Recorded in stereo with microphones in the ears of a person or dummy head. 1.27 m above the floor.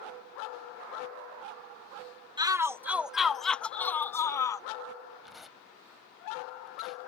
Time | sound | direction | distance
2.4 | a shout | 20° right (ahead or behind) | ?
5.2 | tearing paper | 5° right (ahead or behind) | ?